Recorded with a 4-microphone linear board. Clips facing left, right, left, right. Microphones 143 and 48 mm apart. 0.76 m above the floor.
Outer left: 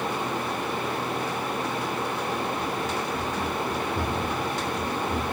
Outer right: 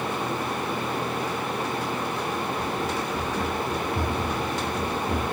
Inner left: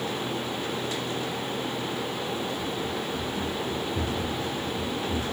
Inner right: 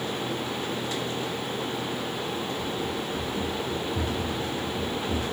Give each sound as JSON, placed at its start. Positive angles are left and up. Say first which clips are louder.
{"t": 2.6, "sound": "running footsteps", "louder": "outer right 1 dB, even", "side_deg": -10, "distance_m": 5.0}